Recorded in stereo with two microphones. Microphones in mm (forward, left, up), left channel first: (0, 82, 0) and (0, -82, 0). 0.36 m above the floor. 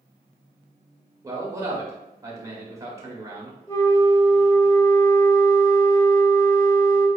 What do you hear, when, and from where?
1.2 s a man speaking: 20° right (ahead or behind), 0.9 m
3.7 s a flute: 20° left (ahead or behind), 1.2 m